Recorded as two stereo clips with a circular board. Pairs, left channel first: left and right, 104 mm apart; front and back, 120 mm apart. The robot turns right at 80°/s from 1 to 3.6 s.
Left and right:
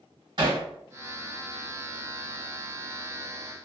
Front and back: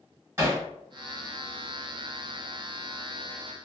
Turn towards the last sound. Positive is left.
turn(degrees=90)